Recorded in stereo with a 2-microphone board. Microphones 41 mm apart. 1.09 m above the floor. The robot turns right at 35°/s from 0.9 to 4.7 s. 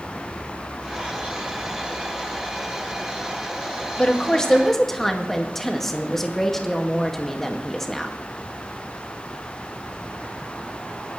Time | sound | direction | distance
4.0 | a woman speaking | 30° left (ahead or behind) | 1.9 m